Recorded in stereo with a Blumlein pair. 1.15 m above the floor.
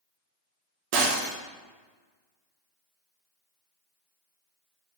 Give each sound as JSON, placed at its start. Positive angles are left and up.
{"t": 0.9, "sound": "breaking glass", "azimuth_deg": -45, "distance_m": 1.3}